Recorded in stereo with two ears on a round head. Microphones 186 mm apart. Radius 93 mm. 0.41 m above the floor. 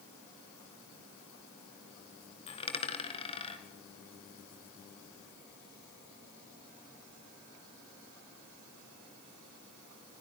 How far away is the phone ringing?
I don't hear a phone ringing.